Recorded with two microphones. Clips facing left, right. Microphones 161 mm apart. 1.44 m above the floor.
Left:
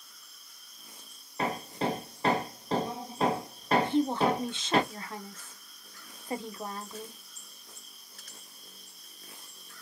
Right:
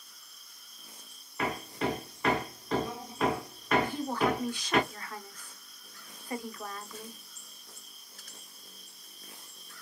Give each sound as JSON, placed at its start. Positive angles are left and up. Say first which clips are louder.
{"t": 1.4, "sound": "hammering", "louder": "left 1 dB", "side_deg": 30, "distance_m": 0.9}
{"t": 3.8, "sound": "a woman speaking", "louder": "left 4 dB", "side_deg": 25, "distance_m": 0.9}